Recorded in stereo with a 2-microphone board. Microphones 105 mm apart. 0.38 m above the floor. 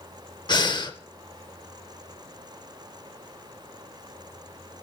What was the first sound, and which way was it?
Breathing, 40° left (ahead or behind).